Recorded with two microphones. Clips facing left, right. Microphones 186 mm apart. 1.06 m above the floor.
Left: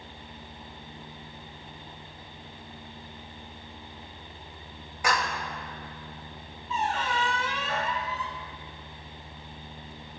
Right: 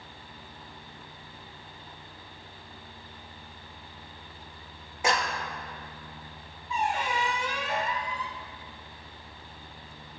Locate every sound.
5.0 s a clap: 25° right (ahead or behind), 1.5 m
6.7 s a squeak: 15° right (ahead or behind), 1.0 m